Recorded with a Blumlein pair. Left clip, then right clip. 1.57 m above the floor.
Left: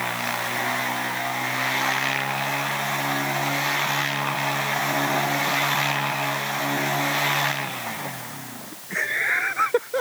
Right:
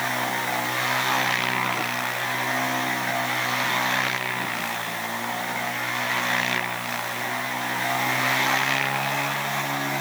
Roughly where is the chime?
I don't hear a chime.